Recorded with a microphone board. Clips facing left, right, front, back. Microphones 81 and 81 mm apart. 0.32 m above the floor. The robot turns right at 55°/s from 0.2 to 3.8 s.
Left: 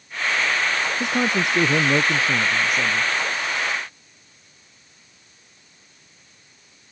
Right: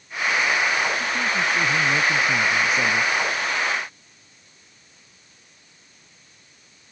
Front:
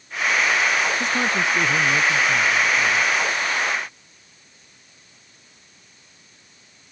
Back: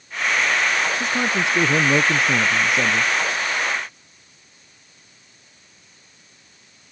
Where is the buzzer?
No buzzer in this recording.